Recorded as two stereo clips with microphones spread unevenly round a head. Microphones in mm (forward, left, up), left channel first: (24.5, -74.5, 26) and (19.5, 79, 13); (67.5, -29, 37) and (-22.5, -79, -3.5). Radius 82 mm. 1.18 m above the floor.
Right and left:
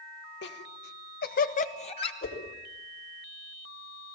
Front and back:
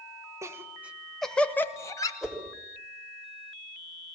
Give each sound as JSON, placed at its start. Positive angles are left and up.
{"t": 0.4, "sound": "laughter", "azimuth_deg": -100, "distance_m": 1.8}
{"t": 2.2, "sound": "a whoosh", "azimuth_deg": -65, "distance_m": 5.0}